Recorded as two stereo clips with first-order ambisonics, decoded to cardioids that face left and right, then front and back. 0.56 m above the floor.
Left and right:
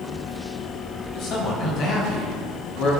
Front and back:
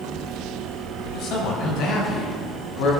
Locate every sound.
1.1 s a man speaking: 45° left, 4 m; by 2.9 s 40° left, 6 m